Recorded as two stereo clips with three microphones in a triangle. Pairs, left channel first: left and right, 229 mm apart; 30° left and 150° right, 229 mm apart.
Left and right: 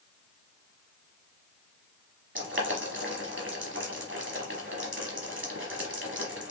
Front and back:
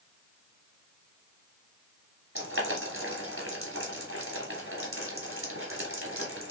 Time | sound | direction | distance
2.4 | boiling | 125° right | 1.4 m